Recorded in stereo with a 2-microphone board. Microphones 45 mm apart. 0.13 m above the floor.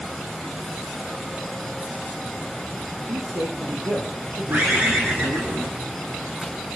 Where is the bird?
50° right (ahead or behind), 4 m.